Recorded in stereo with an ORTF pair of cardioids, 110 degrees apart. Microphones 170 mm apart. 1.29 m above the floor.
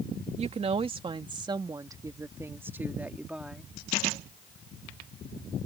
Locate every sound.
0.4 s a woman speaking: 40° right; by 3.7 s 5° right